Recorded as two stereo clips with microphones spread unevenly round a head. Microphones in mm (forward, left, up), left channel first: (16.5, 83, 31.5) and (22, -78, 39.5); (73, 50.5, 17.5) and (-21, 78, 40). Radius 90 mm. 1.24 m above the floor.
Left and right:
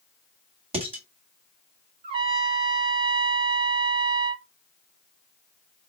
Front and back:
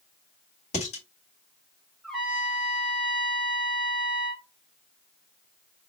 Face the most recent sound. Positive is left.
turn(degrees=-125)